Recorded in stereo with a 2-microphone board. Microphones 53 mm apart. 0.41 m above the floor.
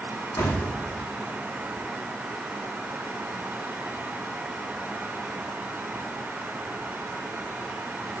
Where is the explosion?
80° left, 8.5 m.